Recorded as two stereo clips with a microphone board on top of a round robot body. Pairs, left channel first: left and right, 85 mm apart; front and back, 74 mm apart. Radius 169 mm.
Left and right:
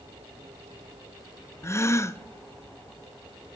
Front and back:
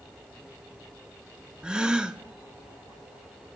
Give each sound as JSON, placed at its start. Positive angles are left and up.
{"t": 1.6, "sound": "a gasp", "azimuth_deg": 110, "distance_m": 0.7}